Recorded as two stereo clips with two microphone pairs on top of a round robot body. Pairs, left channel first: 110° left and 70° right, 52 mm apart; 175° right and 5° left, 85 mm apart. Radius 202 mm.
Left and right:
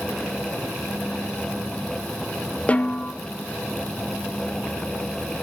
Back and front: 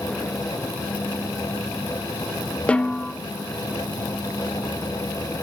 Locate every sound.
2.7 s a snare drum: 110° left, 1.1 m